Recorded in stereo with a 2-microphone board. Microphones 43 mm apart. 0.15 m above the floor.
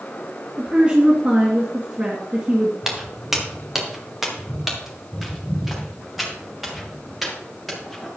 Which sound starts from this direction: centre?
Footsteps, at 2.8 s.